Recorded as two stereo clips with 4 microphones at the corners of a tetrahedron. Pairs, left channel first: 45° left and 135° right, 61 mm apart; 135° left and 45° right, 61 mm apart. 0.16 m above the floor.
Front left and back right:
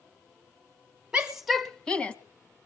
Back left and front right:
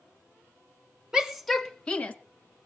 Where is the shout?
100° right, 1.1 m; by 2.1 s 95° left, 1.3 m.